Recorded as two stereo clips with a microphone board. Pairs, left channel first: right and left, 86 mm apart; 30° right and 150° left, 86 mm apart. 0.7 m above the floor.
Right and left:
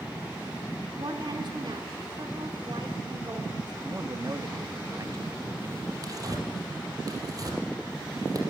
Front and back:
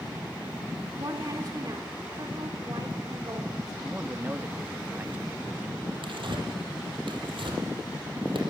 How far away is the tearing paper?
About 4.5 m.